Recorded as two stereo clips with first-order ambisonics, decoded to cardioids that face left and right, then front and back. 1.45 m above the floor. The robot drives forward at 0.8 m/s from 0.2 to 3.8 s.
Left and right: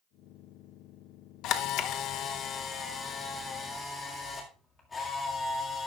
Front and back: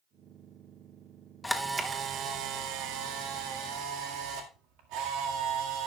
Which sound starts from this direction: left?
A camera shutter, at 1.4 s.